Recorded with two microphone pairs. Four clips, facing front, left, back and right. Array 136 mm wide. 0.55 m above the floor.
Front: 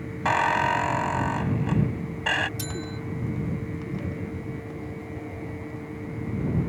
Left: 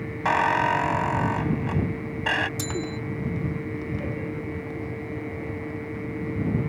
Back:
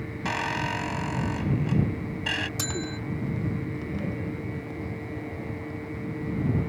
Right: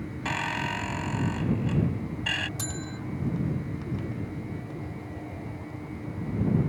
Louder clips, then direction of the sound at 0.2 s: Left 11 dB, front 8 dB; 55° left.